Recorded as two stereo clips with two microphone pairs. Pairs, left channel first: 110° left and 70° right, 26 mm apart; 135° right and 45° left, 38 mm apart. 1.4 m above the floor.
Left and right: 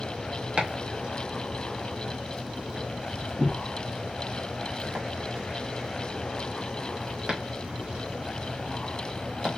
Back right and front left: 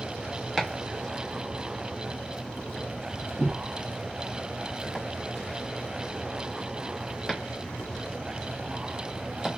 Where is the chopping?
40° right, 1.0 m.